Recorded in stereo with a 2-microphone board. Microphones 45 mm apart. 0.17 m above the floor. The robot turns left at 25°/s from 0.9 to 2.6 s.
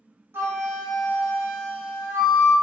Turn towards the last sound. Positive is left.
turn(degrees=-110)